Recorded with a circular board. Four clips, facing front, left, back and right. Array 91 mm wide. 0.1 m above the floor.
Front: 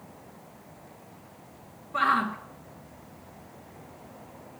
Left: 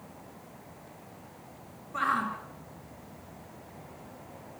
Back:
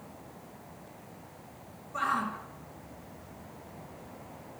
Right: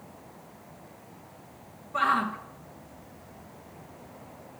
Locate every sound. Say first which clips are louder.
1.9 s a shout: right 4 dB, front 6 dB; 15° right, 1.4 m